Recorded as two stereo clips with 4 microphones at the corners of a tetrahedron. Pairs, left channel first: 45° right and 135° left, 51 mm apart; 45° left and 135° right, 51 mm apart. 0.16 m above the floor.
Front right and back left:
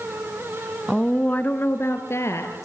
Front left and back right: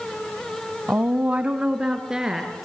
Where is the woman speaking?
130° right, 1.2 m; by 2.7 s 55° right, 3 m.